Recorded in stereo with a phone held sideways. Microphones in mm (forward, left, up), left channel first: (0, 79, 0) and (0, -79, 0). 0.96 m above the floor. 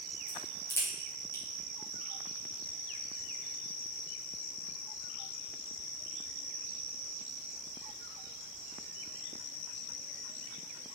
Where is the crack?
15° left (ahead or behind), 3.5 m.